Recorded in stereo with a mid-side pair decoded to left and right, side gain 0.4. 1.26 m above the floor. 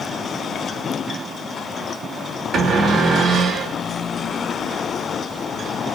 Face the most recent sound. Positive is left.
turn(degrees=-70)